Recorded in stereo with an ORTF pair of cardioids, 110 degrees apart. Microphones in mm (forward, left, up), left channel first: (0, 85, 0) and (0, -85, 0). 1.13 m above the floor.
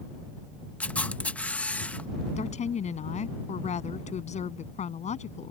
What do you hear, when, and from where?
0.8 s a camera shutter: 5° left
2.4 s a woman speaking: 45° left